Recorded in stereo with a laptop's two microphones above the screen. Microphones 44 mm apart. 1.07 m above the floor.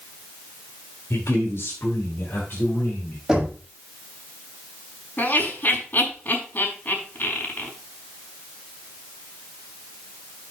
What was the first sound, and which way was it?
A man speaking, 75° left (ahead or behind).